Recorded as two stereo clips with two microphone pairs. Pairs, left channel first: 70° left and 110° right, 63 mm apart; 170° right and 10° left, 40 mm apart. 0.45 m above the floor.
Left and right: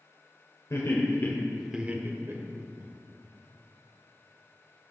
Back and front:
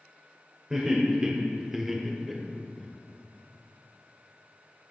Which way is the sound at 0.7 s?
75° left.